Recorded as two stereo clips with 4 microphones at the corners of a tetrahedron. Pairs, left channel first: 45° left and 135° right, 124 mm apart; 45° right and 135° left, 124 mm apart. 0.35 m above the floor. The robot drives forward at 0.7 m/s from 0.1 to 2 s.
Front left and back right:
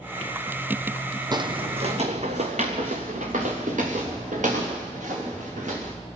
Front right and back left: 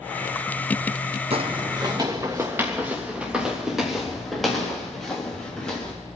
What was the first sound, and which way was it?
Footsteps, 170° left.